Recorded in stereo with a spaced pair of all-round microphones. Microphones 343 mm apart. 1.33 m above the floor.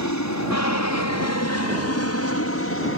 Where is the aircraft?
55° left (ahead or behind); by 3.0 s 40° left (ahead or behind).